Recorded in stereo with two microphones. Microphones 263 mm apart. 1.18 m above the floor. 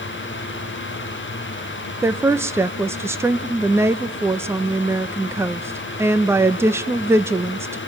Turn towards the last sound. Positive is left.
turn(degrees=-10)  # may be behind; listen again after turning